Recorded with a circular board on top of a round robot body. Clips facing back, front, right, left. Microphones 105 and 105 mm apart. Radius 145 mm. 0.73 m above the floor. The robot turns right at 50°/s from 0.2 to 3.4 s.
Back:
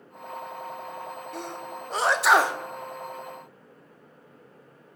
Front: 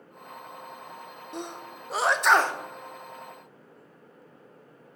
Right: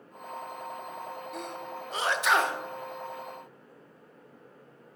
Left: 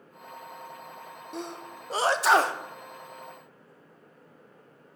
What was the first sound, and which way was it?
A sneeze, 55° left.